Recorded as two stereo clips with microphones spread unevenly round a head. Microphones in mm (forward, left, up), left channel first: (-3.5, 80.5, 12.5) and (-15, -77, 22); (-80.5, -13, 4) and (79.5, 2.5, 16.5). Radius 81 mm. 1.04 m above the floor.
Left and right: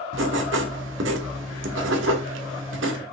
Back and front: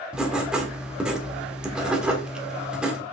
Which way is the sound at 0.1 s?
80° right.